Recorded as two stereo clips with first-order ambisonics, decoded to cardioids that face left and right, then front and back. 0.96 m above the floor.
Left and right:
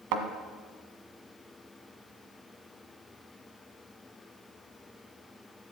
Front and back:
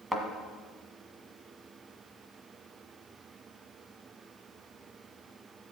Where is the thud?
90° right, 1.5 m.